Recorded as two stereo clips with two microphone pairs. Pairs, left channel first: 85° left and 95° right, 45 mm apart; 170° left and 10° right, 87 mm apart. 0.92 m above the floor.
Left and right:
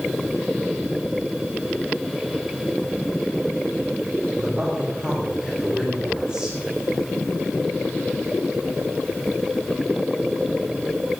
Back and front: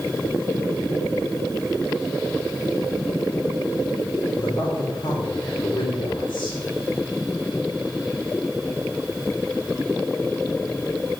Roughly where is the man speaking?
Behind.